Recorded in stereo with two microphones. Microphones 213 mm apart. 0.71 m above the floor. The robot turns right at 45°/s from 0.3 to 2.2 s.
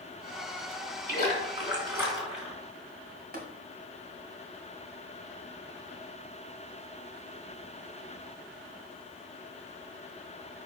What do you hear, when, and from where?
1.1 s a splash: 50° right, 3 m; by 2.6 s straight ahead, 3 m
3.3 s tapping: 50° right (ahead or behind), 1.9 m